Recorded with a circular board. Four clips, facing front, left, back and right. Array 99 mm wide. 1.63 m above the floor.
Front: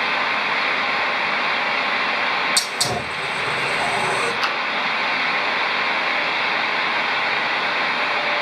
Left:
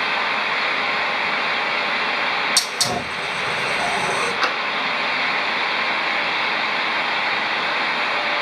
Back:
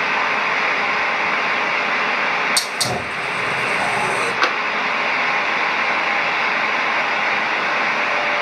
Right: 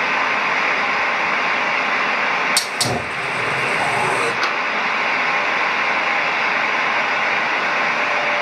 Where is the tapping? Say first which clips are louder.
Right 1 dB, back 4 dB; straight behind, 1.0 m.